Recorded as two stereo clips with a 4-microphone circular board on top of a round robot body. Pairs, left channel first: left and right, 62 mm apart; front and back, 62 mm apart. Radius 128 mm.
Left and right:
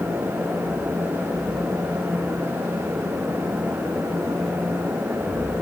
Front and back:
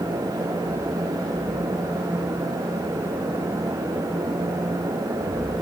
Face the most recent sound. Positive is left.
No sound to turn to.